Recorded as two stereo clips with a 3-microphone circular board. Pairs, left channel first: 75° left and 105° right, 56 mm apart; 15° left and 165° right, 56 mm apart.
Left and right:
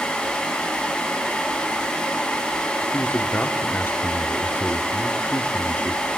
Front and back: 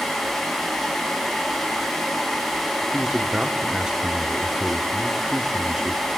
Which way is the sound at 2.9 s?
120° left.